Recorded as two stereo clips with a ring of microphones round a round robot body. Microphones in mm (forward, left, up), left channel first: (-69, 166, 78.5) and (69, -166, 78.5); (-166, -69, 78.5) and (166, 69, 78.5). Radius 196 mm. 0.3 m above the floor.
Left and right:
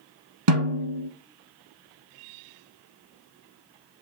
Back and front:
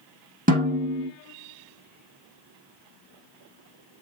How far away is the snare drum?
About 1.6 m.